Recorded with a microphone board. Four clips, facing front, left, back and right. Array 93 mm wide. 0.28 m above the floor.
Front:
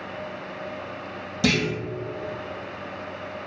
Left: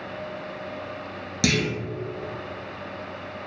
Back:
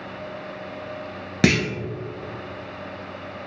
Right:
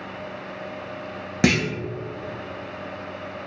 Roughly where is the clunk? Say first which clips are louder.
Right 4 dB, back 3 dB; behind right.